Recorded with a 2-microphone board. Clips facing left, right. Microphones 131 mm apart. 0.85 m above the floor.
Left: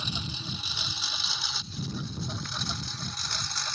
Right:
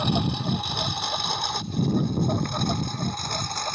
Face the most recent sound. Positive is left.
turn(degrees=-50)  # may be behind; listen again after turning